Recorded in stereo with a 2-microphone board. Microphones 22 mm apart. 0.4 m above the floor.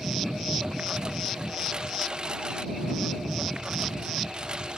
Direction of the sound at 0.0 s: 35° right (ahead or behind).